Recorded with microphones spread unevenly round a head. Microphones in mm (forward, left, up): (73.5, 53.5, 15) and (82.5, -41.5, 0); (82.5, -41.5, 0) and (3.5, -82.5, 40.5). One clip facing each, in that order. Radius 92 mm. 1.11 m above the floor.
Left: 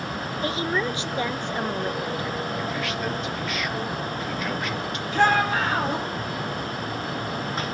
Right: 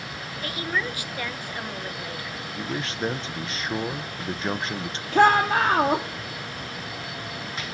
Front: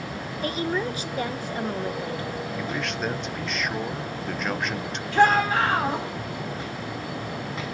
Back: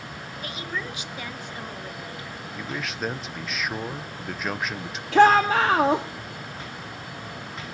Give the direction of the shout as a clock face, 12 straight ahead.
5 o'clock.